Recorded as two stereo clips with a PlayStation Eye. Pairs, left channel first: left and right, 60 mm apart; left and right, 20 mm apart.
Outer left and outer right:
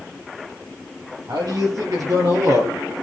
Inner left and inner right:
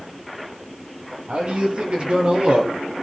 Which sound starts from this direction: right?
A man speaking, at 1.3 s.